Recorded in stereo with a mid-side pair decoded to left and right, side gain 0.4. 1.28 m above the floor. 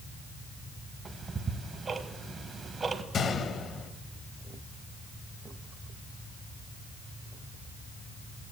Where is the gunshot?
60° left, 1.0 m.